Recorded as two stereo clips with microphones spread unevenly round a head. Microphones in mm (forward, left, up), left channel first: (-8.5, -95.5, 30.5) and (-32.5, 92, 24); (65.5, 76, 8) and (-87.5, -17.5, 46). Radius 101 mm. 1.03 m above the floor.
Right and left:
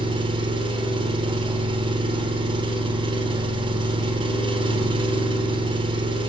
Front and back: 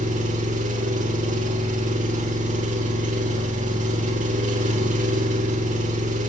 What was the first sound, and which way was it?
An engine running, 160° left.